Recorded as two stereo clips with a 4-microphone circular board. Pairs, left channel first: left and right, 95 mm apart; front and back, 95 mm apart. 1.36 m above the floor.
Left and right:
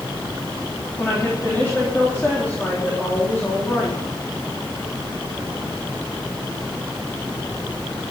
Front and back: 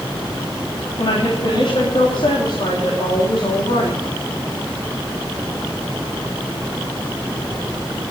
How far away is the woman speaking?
About 3.5 m.